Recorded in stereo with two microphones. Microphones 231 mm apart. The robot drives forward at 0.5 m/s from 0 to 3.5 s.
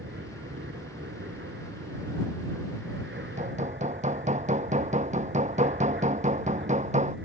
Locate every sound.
0.0 s an aircraft: 60° right (ahead or behind)
3.1 s hammering: 35° right (ahead or behind)